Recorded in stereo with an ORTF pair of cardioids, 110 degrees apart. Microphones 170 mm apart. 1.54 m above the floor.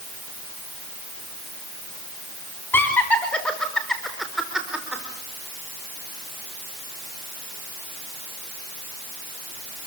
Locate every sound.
2.7 s laughter: 10° left, 5.5 m; by 5.0 s 5° right, 5.5 m